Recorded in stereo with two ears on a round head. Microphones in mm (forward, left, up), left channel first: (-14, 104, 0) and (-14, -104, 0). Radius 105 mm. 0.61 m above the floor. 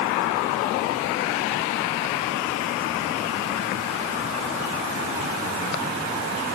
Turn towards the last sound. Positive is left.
No sound to turn to.